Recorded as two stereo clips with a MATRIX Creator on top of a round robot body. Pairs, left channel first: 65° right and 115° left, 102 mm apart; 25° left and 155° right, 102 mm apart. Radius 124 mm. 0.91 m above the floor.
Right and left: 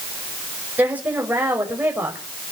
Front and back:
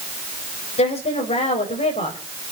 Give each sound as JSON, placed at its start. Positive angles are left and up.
{"t": 0.8, "sound": "a woman speaking", "azimuth_deg": 35, "distance_m": 4.5}